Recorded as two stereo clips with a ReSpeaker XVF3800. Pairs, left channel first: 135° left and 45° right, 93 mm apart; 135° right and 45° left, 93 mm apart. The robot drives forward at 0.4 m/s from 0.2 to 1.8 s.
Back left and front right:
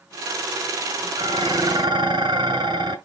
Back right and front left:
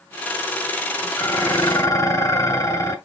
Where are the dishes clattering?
75° right, 1.6 m; by 3.0 s 85° right, 1.6 m.